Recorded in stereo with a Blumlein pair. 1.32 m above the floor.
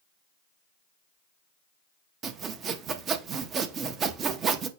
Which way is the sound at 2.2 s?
25° right.